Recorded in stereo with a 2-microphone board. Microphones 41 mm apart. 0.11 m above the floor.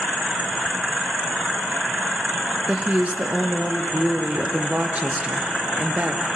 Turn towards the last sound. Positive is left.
turn(degrees=-40)  # may be behind; listen again after turning